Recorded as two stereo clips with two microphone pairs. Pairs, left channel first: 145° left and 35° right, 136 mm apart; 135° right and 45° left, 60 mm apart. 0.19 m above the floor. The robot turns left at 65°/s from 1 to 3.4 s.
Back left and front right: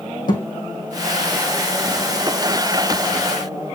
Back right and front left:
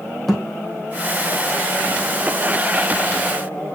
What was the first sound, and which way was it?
A thud, 140° left.